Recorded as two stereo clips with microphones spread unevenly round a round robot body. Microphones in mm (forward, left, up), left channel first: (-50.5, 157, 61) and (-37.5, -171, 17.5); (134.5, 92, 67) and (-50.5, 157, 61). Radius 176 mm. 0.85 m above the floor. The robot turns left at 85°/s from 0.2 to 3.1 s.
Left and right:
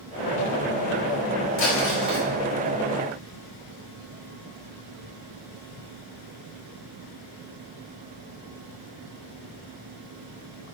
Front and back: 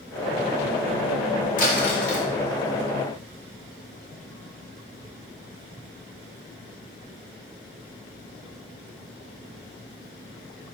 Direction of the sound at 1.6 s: 30° left.